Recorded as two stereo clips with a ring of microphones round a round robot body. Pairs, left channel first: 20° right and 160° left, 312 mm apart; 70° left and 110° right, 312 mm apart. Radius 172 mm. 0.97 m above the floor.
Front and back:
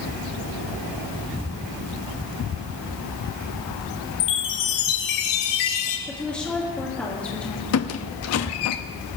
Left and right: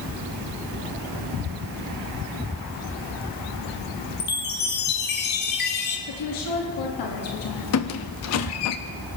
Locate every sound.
4.2 s a chime: 5° left, 1.6 m
6.1 s a woman speaking: 65° left, 2 m
7.7 s a squeak: 25° left, 0.7 m